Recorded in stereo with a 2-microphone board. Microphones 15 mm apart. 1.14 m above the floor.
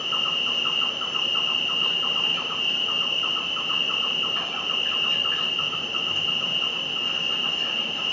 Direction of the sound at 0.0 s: 40° left (ahead or behind).